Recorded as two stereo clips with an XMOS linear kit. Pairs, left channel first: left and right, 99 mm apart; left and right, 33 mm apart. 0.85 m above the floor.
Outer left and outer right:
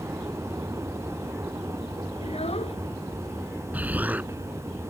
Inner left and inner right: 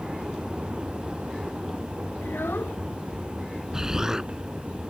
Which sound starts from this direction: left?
A child speaking, at 2.2 s.